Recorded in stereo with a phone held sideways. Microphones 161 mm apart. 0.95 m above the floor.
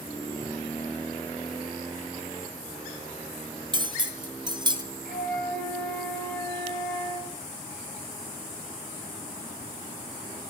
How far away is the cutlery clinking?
About 0.6 m.